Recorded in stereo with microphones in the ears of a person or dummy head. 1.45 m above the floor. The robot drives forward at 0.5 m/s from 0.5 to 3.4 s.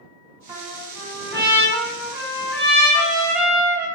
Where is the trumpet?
15° right (ahead or behind), 1.0 m; by 3.9 s 5° right (ahead or behind), 2.5 m.